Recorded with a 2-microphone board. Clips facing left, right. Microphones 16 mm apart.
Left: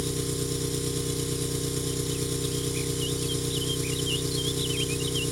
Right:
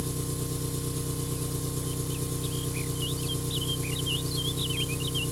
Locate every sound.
0.0 s an engine running: 65° left (ahead or behind), 1.8 m